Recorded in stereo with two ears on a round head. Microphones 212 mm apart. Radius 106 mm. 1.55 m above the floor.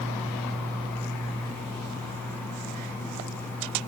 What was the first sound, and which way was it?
Only background noise.